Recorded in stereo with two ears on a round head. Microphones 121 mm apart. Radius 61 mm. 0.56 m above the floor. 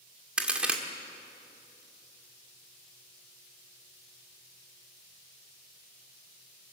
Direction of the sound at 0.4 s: 10° right (ahead or behind).